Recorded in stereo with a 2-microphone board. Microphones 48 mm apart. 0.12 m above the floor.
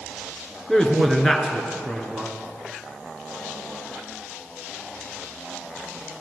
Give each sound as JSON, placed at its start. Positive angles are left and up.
{"t": 0.7, "sound": "a man speaking", "side_deg": 10, "distance_m": 2.0}